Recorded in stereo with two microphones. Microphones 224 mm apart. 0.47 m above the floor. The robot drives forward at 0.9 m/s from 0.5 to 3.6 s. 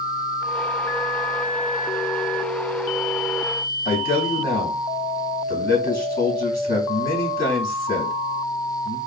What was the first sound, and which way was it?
A man speaking, 40° left (ahead or behind).